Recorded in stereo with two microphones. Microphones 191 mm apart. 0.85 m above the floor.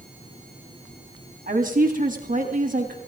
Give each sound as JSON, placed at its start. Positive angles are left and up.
{"t": 1.5, "sound": "a woman speaking", "side_deg": -50, "distance_m": 1.8}